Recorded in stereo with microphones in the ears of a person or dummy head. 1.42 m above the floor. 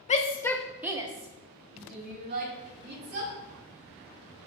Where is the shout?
35° left (ahead or behind), 0.6 m; by 3.3 s 50° right (ahead or behind), 2 m.